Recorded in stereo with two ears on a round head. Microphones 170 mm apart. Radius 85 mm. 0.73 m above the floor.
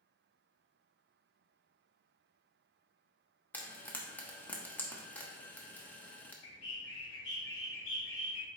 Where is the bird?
70° left (ahead or behind), 1.7 m.